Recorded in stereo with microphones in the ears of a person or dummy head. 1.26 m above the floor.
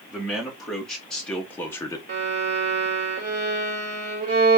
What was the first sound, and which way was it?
A man speaking, 5° right (ahead or behind).